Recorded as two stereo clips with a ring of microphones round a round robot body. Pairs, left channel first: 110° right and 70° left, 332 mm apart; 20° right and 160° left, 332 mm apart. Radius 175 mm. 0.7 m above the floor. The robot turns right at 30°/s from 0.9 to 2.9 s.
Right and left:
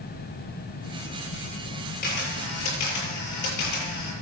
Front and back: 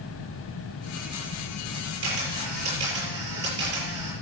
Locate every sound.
2.0 s a camera shutter: straight behind, 6.5 m; by 4.1 s 155° right, 6.5 m